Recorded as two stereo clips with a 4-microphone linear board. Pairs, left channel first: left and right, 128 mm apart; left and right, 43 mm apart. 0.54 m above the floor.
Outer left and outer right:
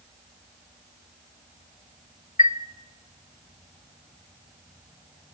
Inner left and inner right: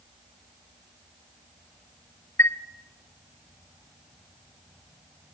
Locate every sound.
2.4 s a chime: 70° left (ahead or behind), 0.7 m